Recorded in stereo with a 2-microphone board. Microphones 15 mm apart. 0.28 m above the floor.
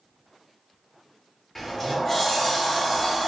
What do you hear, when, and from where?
1.6 s a sliding door: 20° left (ahead or behind), 0.8 m